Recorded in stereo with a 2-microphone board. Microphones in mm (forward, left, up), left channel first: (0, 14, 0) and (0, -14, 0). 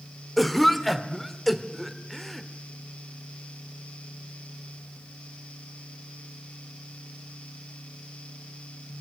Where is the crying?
I don't hear crying.